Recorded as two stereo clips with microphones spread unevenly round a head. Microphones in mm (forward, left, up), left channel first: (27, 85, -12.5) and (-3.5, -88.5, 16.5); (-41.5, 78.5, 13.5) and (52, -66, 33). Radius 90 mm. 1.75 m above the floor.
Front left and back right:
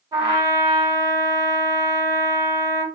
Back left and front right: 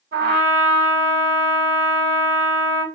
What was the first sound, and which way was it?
A trumpet, 40° right.